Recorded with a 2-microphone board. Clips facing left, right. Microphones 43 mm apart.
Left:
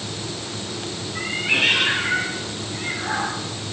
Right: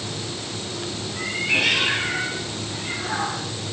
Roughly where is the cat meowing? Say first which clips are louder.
Left 1 dB; left.